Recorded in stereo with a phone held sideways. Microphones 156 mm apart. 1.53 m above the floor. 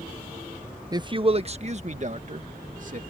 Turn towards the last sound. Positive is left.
turn(degrees=-55)  # may be behind; listen again after turning